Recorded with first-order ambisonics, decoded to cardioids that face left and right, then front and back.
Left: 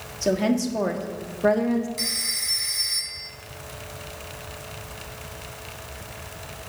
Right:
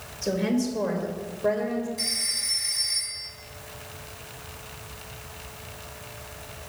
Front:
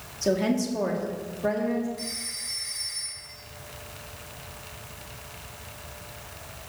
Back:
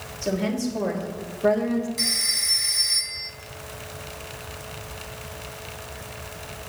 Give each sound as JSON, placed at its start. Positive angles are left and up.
{"t": 0.2, "sound": "a woman speaking", "azimuth_deg": 65, "distance_m": 1.6}
{"t": 2.0, "sound": "a phone ringing", "azimuth_deg": 140, "distance_m": 1.2}